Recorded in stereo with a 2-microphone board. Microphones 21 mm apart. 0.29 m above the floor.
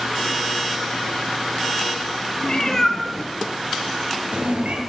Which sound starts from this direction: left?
A cat meowing, at 2.4 s.